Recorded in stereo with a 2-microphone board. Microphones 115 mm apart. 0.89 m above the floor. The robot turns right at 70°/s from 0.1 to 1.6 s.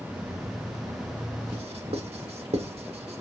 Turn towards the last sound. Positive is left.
turn(degrees=-65)  # may be behind; listen again after turning